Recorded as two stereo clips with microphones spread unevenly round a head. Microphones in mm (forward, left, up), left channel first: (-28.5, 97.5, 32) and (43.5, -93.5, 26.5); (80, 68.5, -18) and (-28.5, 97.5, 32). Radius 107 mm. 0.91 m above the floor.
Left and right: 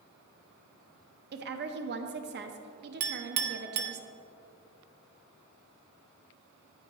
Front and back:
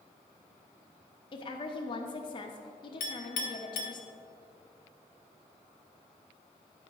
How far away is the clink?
About 0.7 m.